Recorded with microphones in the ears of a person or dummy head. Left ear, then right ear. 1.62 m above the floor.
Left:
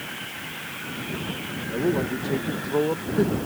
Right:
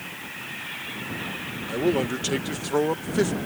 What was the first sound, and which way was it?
A man speaking, 70° right (ahead or behind).